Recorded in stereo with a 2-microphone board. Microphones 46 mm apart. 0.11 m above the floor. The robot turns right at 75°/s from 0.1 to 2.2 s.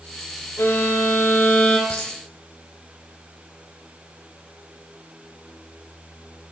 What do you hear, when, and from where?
0.6 s a violin: 65° left, 4 m; by 1.8 s 155° left, 4 m
1.9 s a dropped coin: 65° left (ahead or behind), 4.5 m; by 2.1 s 80° left, 4.5 m